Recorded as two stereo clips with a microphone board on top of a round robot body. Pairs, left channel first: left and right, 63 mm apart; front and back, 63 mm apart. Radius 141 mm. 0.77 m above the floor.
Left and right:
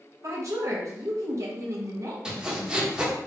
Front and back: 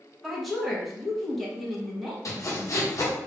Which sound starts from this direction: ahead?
Sawing, at 2.2 s.